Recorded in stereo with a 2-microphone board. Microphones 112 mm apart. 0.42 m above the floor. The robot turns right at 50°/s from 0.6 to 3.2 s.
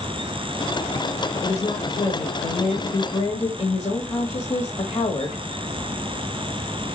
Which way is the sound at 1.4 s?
40° left.